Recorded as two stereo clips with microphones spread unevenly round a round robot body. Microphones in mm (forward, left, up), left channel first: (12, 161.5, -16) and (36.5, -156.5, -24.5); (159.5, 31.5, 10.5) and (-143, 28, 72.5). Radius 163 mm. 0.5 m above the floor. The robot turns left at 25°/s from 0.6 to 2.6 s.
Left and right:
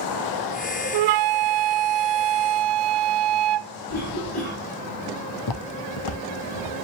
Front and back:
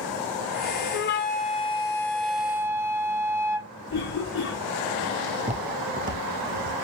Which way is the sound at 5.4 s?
120° left.